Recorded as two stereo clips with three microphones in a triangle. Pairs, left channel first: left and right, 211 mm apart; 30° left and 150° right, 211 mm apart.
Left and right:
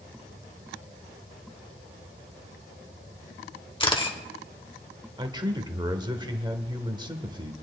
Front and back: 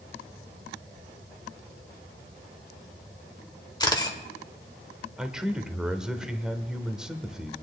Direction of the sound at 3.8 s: 70° left.